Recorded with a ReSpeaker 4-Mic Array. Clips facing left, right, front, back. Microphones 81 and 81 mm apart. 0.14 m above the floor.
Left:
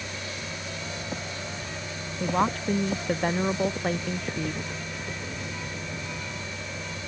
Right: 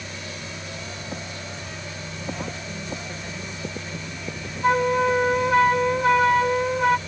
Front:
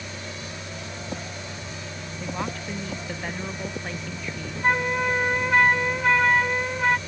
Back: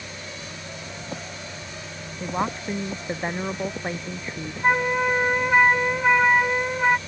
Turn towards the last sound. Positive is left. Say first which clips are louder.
# right 17 dB, back 2 dB
turn(degrees=-100)